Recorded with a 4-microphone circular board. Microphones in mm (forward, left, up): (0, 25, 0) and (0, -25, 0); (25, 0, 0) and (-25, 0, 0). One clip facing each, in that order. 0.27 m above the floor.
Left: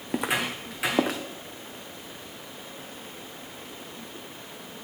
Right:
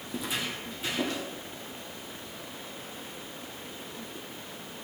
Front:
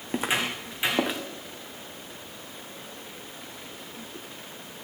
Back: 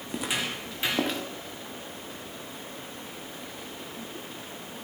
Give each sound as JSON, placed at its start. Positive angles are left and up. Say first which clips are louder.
{"t": 0.1, "sound": "footsteps", "louder": "left 7 dB, front 4 dB", "azimuth_deg": 60, "distance_m": 1.3}